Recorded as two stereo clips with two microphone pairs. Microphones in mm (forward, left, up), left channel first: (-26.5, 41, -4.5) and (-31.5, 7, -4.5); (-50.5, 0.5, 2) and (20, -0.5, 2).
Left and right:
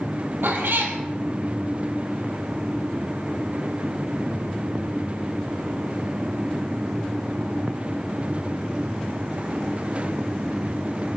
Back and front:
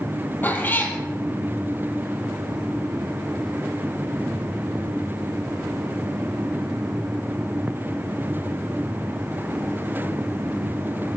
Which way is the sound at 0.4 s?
120° right.